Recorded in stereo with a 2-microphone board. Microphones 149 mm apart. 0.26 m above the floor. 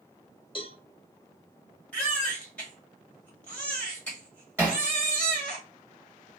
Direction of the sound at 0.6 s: 35° left (ahead or behind).